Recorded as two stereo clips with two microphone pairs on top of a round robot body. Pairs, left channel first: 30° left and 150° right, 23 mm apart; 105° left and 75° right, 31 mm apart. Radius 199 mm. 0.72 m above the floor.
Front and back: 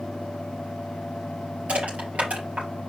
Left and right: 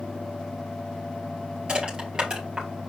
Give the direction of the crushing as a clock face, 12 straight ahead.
5 o'clock.